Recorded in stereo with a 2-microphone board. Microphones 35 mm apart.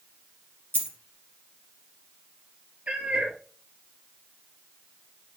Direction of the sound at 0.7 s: 75° right (ahead or behind).